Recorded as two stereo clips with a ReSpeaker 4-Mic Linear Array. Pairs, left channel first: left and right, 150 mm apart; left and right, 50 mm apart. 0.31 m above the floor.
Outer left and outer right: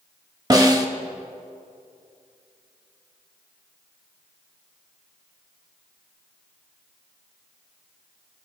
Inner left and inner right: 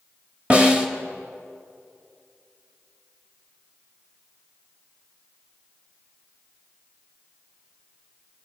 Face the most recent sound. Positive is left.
turn(degrees=-25)  # may be behind; listen again after turning